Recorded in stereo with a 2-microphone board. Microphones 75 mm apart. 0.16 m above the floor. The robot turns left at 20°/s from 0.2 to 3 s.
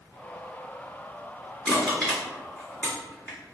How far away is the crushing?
About 1.5 m.